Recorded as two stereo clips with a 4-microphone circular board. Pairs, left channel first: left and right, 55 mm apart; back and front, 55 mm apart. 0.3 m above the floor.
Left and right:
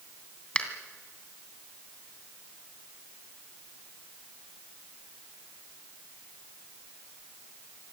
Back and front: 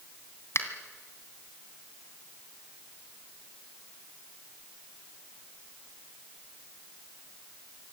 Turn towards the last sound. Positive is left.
turn(degrees=160)